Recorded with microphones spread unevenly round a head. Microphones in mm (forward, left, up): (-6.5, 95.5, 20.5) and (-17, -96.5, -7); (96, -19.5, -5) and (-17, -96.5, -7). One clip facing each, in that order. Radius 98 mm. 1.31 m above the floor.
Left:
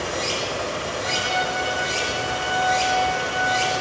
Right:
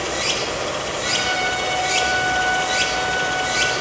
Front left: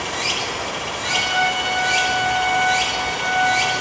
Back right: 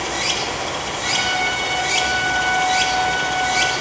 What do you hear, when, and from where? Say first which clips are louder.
0.0 s running water: right 2 dB, back right 2 dB; 120° right, 1.1 m
1.0 s a trumpet: right 1 dB, front left 3 dB; 125° right, 3.5 m